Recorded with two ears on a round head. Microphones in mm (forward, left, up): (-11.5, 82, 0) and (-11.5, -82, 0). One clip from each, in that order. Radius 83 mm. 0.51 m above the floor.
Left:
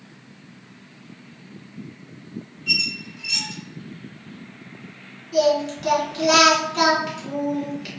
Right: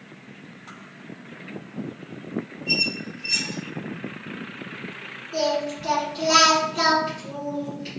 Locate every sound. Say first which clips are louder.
2.7 s a squeak: left 2 dB; 45° left (ahead or behind), 1.1 m
5.3 s singing: left 5 dB; 35° left (ahead or behind), 1.6 m